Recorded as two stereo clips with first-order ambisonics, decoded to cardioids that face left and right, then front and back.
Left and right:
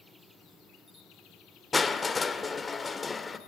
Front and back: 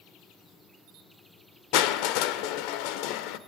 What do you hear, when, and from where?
1.7 s crushing: 15° left, 1.1 m